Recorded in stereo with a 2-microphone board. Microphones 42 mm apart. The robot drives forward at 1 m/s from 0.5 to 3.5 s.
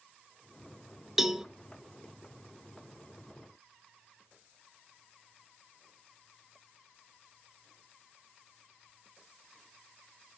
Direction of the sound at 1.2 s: 10° right (ahead or behind).